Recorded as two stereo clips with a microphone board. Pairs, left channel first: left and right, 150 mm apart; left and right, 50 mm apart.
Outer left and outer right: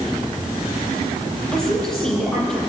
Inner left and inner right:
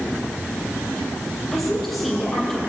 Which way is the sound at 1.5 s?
5° left (ahead or behind).